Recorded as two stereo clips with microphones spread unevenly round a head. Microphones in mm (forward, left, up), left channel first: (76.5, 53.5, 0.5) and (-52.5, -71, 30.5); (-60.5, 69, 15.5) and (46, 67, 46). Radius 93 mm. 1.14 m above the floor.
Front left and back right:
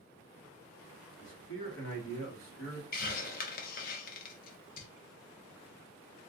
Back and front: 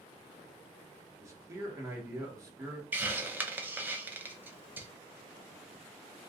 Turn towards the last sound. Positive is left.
turn(degrees=80)